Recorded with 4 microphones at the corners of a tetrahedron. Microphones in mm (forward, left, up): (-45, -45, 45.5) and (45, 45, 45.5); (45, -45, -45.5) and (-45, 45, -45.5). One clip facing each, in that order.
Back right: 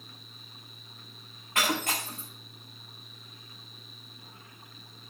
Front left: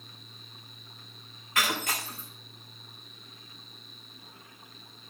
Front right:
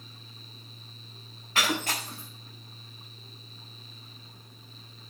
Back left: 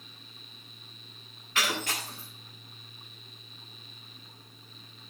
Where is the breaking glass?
95° right, 7.5 m.